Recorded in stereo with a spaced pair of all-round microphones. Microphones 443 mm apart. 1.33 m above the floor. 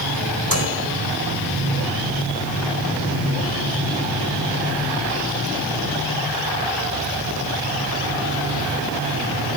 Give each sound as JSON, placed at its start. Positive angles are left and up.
{"t": 0.5, "sound": "a microwave", "side_deg": -45, "distance_m": 4.0}